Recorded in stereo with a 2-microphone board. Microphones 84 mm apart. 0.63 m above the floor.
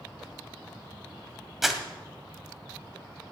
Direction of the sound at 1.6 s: 5° right (ahead or behind).